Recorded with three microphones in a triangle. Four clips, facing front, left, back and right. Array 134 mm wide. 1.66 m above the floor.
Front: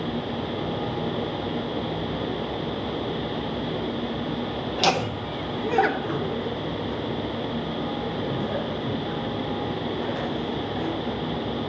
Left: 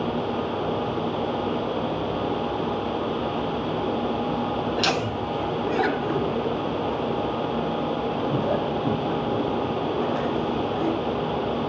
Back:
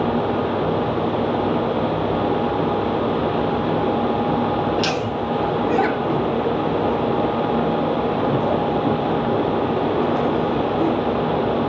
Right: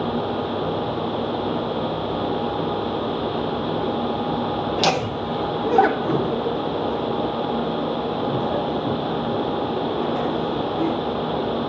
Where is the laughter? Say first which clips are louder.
Right 3 dB, back 3 dB; 55° right, 2 m; by 10.9 s 170° left, 6.5 m.